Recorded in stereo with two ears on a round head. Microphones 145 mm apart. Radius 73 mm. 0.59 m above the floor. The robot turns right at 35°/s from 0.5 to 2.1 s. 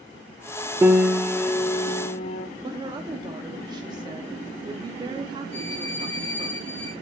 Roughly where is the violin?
Left.